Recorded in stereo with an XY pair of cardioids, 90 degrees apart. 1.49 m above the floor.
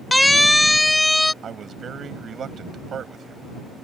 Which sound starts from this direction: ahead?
A siren, at 0.1 s.